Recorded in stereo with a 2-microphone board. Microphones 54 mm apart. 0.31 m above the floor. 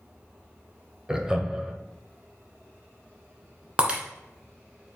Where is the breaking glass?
20° right (ahead or behind), 1.5 m.